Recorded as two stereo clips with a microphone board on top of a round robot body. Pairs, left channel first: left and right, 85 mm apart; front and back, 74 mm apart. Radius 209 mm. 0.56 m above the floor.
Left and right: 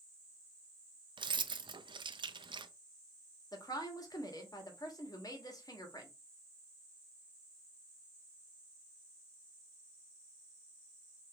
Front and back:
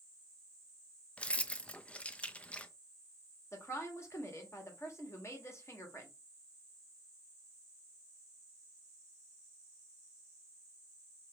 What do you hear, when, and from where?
1.2 s keys jangling: 70° right, 0.5 m
3.5 s a woman speaking: 50° left, 1.6 m